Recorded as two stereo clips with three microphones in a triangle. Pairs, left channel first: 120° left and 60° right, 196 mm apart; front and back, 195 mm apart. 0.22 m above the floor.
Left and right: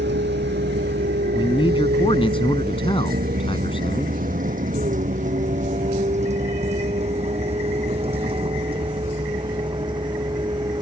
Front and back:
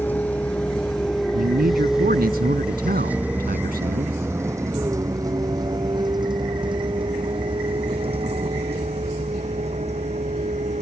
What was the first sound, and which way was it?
A vehicle, 80° right.